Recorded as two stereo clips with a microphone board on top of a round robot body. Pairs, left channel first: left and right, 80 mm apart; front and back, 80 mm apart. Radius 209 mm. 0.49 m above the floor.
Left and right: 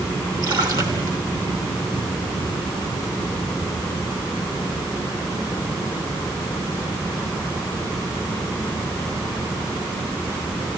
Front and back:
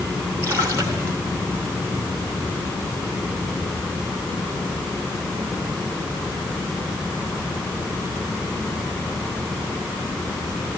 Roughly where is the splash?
Behind right.